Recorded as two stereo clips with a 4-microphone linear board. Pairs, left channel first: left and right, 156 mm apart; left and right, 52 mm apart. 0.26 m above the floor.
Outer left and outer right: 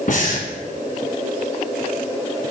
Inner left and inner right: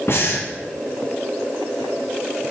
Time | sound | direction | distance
0.1 | breathing | 65° left (ahead or behind) | 1.9 m